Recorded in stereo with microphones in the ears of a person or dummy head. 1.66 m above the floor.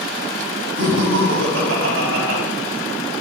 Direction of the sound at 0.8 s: 90° right.